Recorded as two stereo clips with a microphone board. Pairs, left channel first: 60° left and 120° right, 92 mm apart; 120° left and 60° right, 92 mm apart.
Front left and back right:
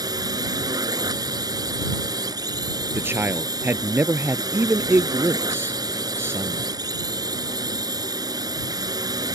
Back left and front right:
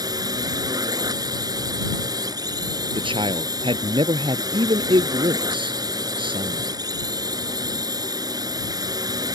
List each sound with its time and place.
0.0 s a drone: 90° right
3.0 s a man speaking: 60° right